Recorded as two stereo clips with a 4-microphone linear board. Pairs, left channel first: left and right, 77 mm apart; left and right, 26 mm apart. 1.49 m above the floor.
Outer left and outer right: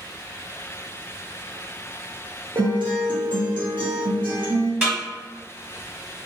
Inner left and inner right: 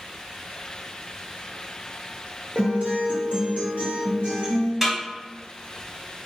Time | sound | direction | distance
2.5 | a guitar | 75° right (ahead or behind) | 0.9 m
4.8 | a snare drum | 15° right (ahead or behind) | 1.3 m